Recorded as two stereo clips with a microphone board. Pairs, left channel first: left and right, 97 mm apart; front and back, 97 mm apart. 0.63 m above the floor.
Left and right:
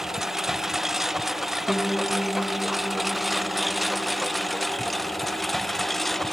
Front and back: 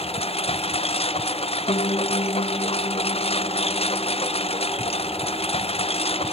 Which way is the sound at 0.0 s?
5° right.